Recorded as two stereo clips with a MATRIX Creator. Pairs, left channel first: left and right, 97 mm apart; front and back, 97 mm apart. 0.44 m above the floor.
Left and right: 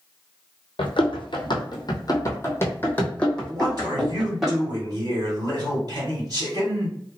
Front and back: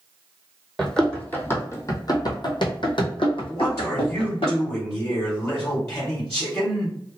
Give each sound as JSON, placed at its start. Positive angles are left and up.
{"t": 0.8, "sound": "running footsteps", "azimuth_deg": 85, "distance_m": 1.1}
{"t": 3.5, "sound": "a man speaking", "azimuth_deg": -65, "distance_m": 1.9}